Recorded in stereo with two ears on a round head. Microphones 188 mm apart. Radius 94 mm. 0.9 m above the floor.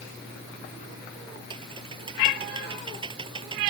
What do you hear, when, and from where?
1.5 s typing on a keyboard: 25° right (ahead or behind)